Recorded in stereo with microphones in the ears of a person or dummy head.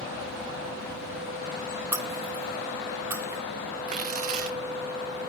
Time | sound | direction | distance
1.9 | breaking glass | 15° right (ahead or behind) | 1.6 m
3.9 | tearing paper | 45° right (ahead or behind) | 0.8 m